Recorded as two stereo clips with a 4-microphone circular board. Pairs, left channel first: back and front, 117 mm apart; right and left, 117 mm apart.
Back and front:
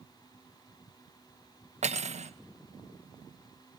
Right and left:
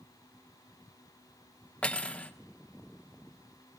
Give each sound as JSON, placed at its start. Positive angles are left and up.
{"t": 1.8, "sound": "cutlery clinking", "azimuth_deg": -10, "distance_m": 0.8}